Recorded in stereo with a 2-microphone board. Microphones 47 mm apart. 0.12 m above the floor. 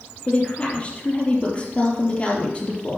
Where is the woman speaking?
30° left (ahead or behind), 3.5 m.